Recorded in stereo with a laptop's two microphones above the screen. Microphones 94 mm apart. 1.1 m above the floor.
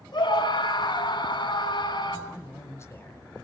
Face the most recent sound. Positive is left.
turn(degrees=30)  # may be behind; listen again after turning